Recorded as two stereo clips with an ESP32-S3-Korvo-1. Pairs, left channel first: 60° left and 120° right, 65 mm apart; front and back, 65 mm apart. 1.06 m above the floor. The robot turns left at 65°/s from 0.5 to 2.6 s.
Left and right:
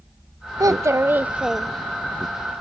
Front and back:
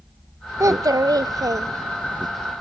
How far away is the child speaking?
About 0.5 m.